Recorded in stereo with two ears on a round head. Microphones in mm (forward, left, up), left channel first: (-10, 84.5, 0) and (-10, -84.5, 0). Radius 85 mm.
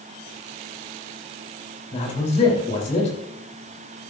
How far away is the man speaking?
About 3.5 m.